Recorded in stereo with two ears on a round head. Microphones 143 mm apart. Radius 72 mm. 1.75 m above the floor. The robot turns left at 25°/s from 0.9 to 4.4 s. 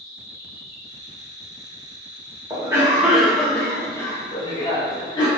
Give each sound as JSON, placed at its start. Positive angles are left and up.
{"t": 0.0, "sound": "an insect", "azimuth_deg": 0, "distance_m": 1.2}
{"t": 2.5, "sound": "a cough", "azimuth_deg": -160, "distance_m": 1.0}